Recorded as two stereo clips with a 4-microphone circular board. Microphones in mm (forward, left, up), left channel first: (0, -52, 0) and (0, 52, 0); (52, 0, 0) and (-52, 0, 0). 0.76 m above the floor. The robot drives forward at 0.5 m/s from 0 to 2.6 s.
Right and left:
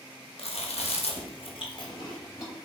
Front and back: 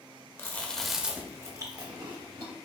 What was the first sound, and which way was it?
Chewing, 65° right.